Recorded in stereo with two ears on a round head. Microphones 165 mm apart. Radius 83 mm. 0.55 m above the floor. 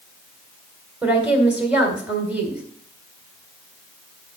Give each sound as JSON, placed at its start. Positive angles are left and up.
{"t": 1.0, "sound": "a woman speaking", "side_deg": -10, "distance_m": 1.8}